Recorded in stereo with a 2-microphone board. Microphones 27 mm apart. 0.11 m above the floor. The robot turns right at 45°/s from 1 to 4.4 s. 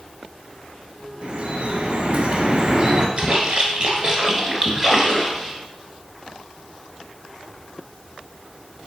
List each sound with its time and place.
1.2 s dripping: 120° right, 0.8 m; by 3.1 s 35° right, 0.8 m
3.2 s a splash: 90° right, 1.1 m; by 5.5 s 35° right, 1.1 m